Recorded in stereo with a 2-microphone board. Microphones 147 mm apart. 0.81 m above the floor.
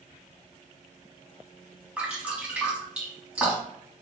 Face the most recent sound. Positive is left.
turn(degrees=-5)  # may be behind; listen again after turning